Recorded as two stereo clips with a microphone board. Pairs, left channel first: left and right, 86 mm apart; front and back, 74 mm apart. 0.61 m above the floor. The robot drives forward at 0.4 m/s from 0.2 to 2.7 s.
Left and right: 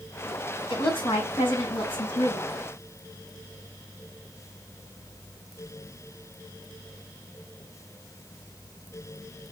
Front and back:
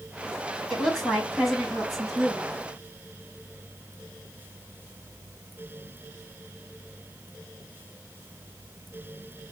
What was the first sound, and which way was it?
A woman speaking, 85° left.